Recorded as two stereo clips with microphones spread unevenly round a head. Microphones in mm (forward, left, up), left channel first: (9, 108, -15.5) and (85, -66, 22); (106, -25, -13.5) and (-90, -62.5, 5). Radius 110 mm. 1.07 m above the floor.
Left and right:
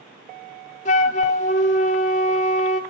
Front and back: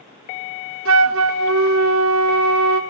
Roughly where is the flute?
Behind.